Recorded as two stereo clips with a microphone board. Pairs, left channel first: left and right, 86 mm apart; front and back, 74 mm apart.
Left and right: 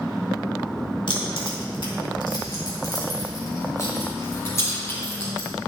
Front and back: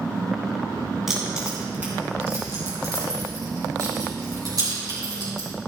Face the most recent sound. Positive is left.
turn(degrees=150)